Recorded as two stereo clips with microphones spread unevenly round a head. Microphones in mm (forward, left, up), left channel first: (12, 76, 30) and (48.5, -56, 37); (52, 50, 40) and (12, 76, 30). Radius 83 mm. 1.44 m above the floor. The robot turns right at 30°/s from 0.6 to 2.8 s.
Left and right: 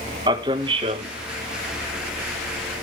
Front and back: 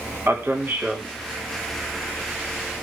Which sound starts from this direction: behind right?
A man speaking, at 0.3 s.